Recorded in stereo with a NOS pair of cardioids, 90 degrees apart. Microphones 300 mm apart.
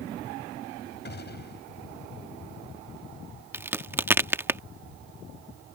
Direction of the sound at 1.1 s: 35° left.